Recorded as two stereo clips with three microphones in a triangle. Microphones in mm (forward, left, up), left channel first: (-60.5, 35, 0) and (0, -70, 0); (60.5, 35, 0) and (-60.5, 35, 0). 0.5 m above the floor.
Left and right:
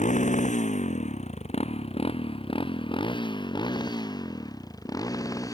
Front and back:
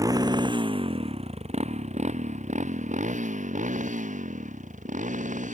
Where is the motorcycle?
120° left; by 5.5 s 175° right.